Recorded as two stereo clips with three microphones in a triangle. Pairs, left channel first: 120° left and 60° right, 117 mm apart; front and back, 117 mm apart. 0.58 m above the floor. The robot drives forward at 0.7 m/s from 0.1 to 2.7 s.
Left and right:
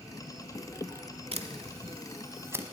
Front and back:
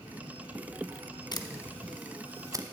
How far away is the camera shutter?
About 0.8 m.